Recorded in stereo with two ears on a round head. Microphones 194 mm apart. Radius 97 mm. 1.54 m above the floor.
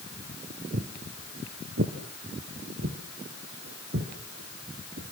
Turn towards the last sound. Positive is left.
turn(degrees=-55)  # may be behind; listen again after turning